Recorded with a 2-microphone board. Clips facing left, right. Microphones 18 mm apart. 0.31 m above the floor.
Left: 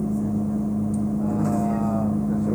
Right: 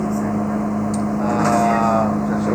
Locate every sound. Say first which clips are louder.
0.0 s a vehicle: right 4 dB; 65° right (ahead or behind); by 2.6 s 60° right (ahead or behind)